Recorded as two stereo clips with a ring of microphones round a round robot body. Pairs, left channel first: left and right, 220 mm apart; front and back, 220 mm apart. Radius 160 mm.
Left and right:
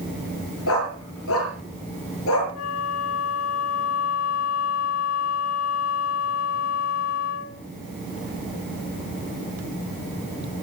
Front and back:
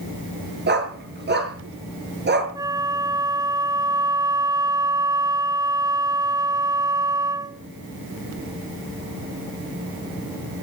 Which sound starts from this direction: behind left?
A dog barking, at 0.7 s.